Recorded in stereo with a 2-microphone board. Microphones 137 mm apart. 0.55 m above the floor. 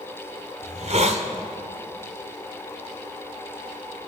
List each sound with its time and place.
0.6 s a hiss: 55° right (ahead or behind), 2.0 m